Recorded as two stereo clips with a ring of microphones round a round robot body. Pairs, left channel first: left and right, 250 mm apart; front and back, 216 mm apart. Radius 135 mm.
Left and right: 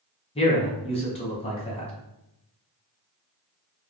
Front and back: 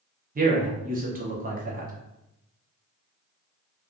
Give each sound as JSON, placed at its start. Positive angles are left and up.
{"t": 0.3, "sound": "a man speaking", "azimuth_deg": 150, "distance_m": 0.8}